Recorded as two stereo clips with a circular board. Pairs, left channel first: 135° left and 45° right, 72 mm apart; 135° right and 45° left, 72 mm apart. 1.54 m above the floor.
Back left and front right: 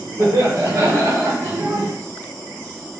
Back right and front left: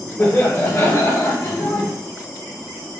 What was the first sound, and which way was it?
Laughter, 70° right.